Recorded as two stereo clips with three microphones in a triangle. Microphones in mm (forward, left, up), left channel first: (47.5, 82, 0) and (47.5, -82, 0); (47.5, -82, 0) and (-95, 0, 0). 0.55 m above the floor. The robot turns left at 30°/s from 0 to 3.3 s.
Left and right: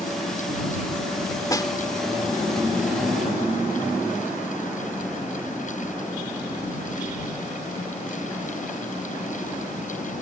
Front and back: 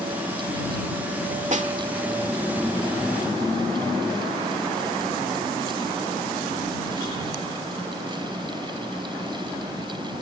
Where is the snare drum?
150° left; by 1.7 s 145° left.